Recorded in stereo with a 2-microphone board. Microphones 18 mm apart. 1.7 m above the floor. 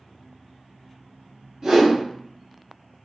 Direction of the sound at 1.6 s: 40° right (ahead or behind).